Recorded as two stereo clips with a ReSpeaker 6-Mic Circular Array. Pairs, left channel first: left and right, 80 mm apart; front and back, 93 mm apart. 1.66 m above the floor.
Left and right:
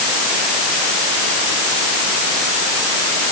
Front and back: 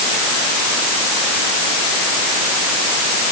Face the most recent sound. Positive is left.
No sound to turn to.